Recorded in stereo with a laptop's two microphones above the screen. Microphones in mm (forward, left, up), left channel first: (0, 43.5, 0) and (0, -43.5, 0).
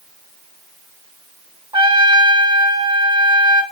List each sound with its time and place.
1.7 s a trumpet: 60° right (ahead or behind), 1.5 m